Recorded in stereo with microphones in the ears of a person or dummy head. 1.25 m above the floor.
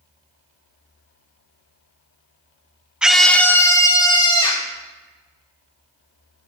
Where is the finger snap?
I don't hear a finger snap.